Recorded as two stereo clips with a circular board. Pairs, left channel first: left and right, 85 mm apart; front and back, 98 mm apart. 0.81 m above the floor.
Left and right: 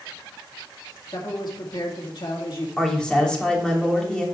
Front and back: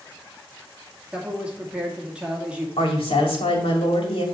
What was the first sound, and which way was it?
A man speaking, 105° left.